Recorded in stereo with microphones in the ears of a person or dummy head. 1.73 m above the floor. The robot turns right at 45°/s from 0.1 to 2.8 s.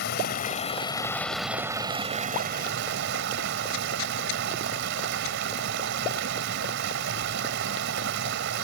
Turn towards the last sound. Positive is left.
turn(degrees=-115)